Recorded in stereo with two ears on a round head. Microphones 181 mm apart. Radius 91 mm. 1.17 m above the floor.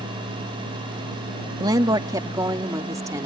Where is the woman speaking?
20° right (ahead or behind); by 3.3 s 15° right (ahead or behind).